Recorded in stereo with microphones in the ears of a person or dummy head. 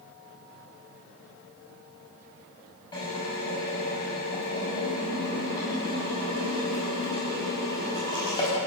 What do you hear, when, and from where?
2.9 s a drill: 20° left (ahead or behind), 6.5 m